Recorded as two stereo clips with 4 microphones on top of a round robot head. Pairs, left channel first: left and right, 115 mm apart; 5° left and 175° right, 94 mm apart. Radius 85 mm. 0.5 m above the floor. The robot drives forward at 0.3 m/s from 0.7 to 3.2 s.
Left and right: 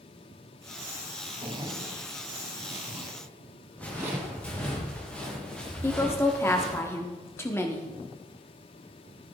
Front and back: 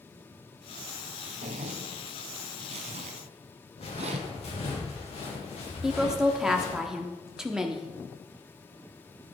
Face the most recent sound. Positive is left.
turn(degrees=110)